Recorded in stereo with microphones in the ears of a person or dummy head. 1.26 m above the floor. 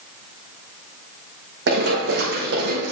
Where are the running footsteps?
75° right (ahead or behind), 4.5 m; by 2.9 s 65° right (ahead or behind), 4 m.